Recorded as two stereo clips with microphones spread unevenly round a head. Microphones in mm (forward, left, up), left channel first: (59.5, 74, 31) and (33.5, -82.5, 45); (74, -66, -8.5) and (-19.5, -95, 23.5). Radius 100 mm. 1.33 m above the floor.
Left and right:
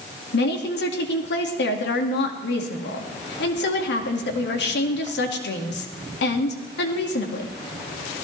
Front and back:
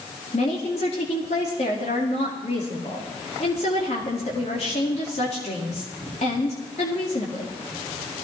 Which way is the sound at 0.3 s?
70° left.